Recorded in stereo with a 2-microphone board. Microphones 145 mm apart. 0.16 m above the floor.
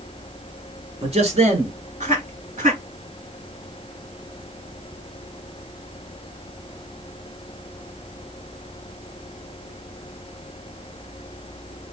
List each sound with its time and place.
1.0 s a man speaking: 45° right (ahead or behind), 2 m; by 2.8 s 55° right (ahead or behind), 3 m